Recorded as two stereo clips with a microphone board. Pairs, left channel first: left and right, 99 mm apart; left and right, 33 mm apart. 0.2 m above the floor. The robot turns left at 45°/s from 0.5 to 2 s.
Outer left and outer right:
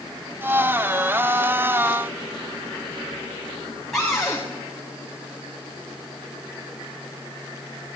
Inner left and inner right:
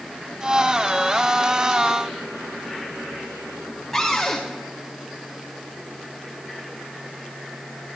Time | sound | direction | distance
3.9 | a cupboard door | 5° left (ahead or behind) | 5.5 m